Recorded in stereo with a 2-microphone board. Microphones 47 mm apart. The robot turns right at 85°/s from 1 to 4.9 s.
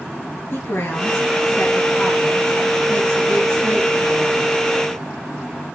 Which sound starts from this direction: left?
A woman speaking, at 0.5 s.